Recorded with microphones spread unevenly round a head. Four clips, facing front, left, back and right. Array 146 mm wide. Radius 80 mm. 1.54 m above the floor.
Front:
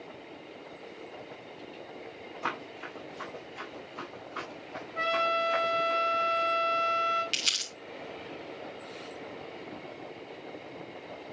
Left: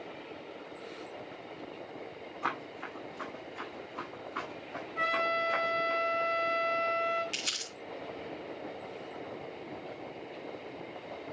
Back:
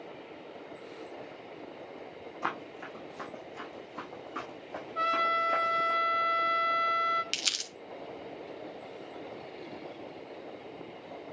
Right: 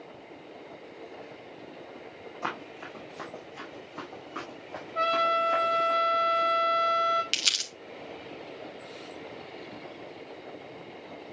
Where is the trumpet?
100° right, 4.5 m.